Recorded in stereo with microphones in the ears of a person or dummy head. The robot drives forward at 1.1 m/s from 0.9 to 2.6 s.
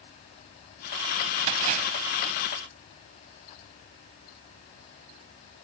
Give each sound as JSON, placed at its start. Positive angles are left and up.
{"t": 1.5, "sound": "a splash", "side_deg": -35}